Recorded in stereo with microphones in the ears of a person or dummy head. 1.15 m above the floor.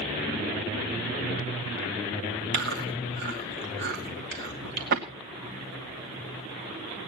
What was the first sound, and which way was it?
Chewing, 60° right (ahead or behind).